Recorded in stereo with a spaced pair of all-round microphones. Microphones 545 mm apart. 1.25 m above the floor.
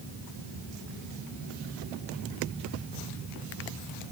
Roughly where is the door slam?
No door slam in this recording.